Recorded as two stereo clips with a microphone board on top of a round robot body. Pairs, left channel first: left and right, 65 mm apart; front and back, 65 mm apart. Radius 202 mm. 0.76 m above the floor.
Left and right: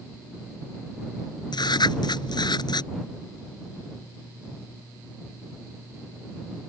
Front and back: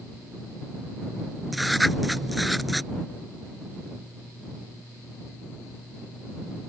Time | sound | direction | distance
1.5 | writing | 90° left | ?